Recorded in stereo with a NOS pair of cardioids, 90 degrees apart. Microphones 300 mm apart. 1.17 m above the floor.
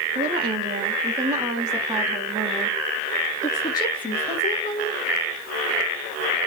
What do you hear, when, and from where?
0.1 s a woman speaking: 25° right, 3 m; by 5.0 s 30° left, 2.5 m